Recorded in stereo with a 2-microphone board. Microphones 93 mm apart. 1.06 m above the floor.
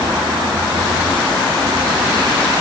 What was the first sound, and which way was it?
Only background noise.